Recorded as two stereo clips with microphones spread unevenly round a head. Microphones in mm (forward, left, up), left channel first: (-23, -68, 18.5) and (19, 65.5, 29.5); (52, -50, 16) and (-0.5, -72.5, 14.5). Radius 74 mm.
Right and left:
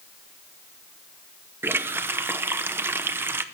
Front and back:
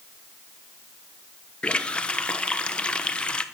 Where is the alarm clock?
I don't hear an alarm clock.